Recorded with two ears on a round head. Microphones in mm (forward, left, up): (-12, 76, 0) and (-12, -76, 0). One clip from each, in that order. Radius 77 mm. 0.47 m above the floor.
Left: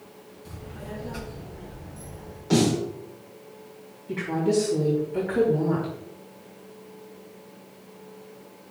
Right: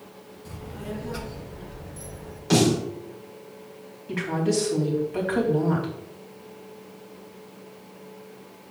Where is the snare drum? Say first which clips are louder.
Right 2 dB; 50° right (ahead or behind), 4 m.